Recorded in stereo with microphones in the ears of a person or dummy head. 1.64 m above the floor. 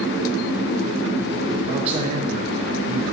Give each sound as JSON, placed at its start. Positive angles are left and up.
{"t": 1.7, "sound": "a man speaking", "side_deg": -35, "distance_m": 0.9}